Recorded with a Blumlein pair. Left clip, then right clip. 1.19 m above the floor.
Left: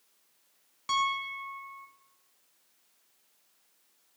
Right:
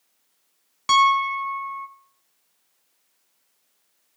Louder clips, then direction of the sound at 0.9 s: Right 12 dB; 30° right.